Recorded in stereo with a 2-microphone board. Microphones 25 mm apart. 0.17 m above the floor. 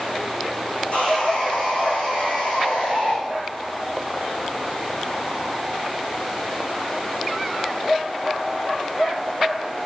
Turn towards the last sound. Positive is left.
turn(degrees=65)  # may be behind; listen again after turning